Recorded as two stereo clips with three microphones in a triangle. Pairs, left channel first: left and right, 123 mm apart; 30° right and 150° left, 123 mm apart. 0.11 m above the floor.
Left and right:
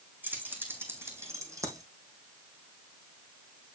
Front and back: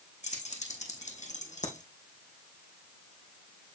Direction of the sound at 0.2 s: 15° right.